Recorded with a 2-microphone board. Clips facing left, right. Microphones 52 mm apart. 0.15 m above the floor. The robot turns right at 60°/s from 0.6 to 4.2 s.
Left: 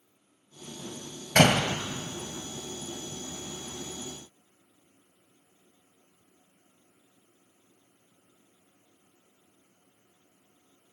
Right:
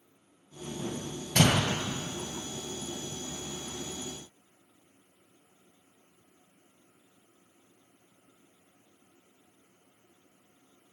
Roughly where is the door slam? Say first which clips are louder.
Left 4 dB; left.